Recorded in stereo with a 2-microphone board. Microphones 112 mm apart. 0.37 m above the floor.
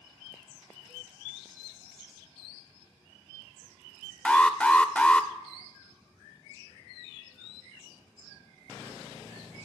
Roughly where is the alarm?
Centre.